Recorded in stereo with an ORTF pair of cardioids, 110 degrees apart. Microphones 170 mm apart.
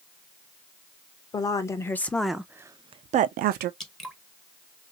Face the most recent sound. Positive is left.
turn(degrees=0)